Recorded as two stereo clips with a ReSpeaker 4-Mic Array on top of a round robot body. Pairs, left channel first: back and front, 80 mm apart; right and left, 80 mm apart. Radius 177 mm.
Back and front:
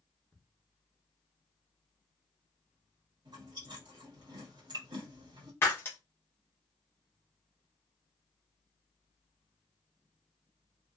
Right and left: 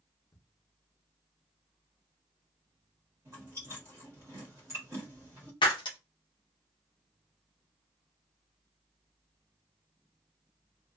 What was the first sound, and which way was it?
Ticking, 110° right.